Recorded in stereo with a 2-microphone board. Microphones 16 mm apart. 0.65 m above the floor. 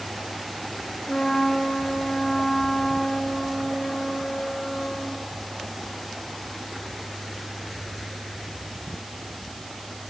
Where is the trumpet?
80° left, 4.5 m.